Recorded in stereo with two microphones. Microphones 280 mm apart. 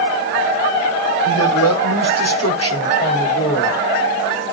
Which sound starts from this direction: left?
A woman speaking, at 1.2 s.